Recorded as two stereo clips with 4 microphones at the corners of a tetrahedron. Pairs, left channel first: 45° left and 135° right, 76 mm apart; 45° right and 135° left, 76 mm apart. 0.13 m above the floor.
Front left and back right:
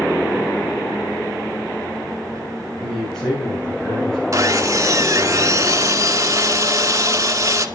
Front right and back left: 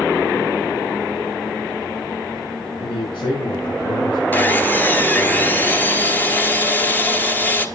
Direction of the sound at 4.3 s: 100° right.